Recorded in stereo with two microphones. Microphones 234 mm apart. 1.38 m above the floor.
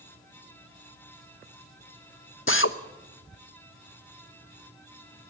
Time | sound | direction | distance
2.5 | a drill | 60° left (ahead or behind) | 0.9 m